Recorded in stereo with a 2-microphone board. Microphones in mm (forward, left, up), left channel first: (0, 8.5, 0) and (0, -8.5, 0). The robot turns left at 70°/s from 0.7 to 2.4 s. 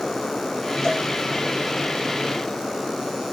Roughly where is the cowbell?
Left.